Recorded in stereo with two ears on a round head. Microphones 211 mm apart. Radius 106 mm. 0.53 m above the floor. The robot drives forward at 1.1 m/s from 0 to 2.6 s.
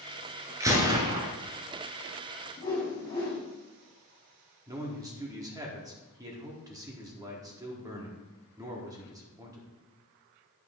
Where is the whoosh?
20° left (ahead or behind), 4 m.